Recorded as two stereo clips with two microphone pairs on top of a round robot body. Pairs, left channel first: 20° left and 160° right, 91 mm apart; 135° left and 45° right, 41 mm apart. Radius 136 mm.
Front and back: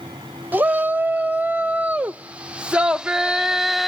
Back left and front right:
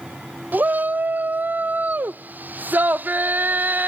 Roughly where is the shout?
Right.